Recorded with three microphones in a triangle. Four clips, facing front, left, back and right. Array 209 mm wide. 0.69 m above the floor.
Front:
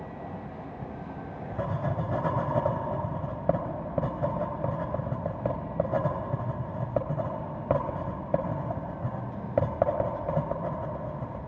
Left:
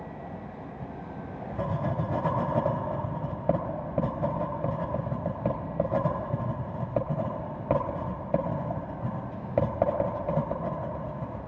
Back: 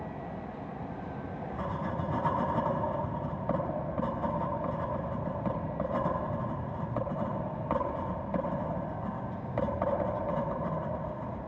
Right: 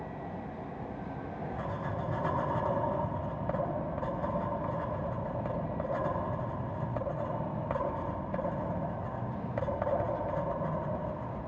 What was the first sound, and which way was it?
Writing, 40° left.